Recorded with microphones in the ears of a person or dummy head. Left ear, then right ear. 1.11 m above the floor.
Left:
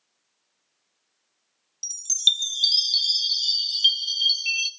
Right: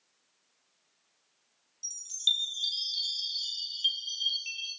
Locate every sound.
1.8 s a chime: 50° left (ahead or behind), 0.5 m